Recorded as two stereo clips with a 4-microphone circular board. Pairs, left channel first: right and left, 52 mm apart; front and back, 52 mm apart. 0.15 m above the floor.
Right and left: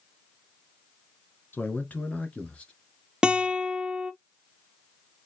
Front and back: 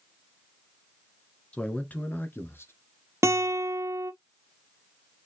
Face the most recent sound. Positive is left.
turn(degrees=165)